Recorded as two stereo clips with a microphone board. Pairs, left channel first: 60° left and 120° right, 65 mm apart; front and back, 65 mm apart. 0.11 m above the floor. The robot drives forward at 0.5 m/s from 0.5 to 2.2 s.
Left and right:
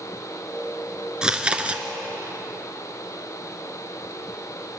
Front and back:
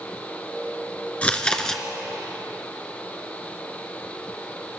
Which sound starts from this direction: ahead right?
Chewing, at 1.2 s.